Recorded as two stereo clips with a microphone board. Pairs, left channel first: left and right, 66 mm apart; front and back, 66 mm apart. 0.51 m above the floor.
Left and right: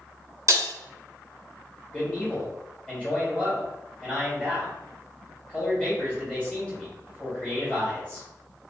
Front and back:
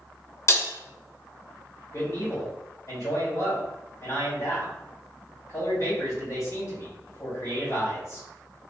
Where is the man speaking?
25° left, 1.7 m.